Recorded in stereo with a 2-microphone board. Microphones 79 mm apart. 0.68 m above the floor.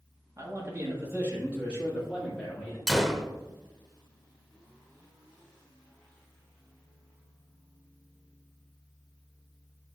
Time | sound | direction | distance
0.4 | a man speaking | 35° right (ahead or behind) | 1.4 m
2.9 | a gunshot | 5° right (ahead or behind) | 0.6 m